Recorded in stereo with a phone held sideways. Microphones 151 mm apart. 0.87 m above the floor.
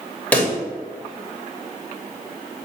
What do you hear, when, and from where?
0.3 s a pop: 10° left (ahead or behind), 1.4 m